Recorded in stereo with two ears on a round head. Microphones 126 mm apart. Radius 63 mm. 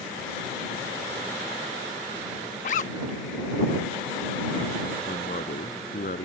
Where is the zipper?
60° left (ahead or behind).